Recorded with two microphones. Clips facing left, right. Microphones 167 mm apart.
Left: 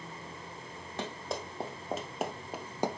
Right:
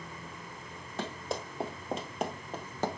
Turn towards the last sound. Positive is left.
turn(degrees=15)  # may be behind; listen again after turning